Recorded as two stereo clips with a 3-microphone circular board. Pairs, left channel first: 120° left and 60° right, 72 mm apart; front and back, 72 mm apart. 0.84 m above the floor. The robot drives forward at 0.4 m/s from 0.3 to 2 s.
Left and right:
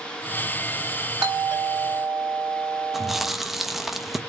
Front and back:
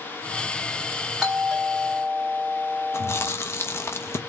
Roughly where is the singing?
No singing in this recording.